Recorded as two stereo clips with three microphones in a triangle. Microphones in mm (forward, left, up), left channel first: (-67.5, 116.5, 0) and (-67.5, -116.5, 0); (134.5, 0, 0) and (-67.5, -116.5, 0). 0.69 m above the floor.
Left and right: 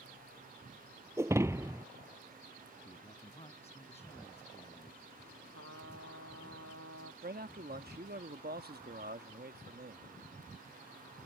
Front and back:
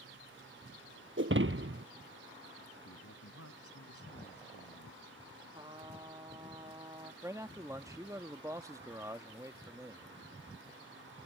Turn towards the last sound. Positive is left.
turn(degrees=-80)